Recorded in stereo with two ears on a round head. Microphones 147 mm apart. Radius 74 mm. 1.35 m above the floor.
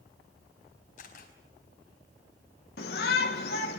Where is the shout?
65° left (ahead or behind), 1.8 m.